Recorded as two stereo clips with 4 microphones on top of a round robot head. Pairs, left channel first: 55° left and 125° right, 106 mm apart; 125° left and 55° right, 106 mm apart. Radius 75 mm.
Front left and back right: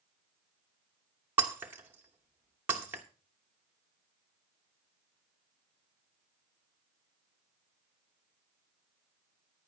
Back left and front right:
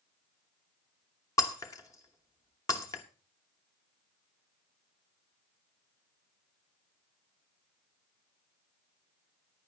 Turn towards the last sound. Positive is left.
turn(degrees=170)